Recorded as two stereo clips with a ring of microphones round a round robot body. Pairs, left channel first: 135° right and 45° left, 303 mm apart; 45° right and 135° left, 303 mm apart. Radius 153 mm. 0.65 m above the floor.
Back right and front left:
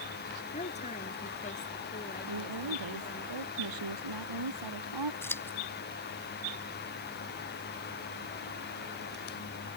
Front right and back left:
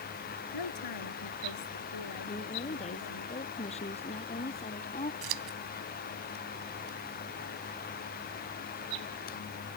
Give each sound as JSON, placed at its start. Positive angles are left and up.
{"t": 0.5, "sound": "a woman speaking", "azimuth_deg": -65}
{"t": 2.3, "sound": "a woman speaking", "azimuth_deg": 25}
{"t": 5.2, "sound": "scissors", "azimuth_deg": 140}